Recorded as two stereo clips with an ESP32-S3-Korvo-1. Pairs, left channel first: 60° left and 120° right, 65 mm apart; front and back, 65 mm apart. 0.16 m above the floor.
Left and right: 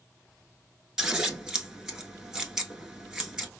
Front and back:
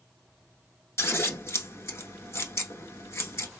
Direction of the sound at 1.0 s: 40° right.